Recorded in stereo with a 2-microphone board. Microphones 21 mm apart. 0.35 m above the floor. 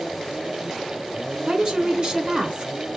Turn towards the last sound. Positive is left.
turn(degrees=-50)  # may be behind; listen again after turning